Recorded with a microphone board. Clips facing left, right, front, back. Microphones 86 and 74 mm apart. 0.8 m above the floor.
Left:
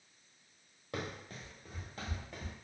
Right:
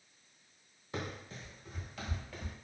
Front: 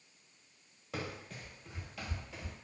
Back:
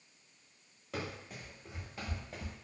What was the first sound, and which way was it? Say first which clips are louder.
Running footsteps: even, even; 90° left.